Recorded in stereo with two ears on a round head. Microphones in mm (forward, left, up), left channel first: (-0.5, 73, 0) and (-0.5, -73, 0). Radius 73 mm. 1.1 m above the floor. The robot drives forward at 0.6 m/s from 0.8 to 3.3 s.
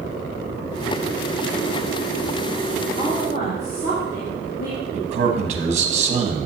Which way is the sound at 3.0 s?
45° left (ahead or behind).